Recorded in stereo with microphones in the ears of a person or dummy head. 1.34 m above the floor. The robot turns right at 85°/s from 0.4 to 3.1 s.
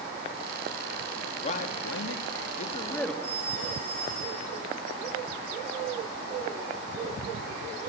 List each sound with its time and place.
1.4 s a man speaking: 30° left, 2.0 m; by 3.1 s 175° left, 2.0 m
3.2 s a phone ringing: 30° right (ahead or behind), 4.5 m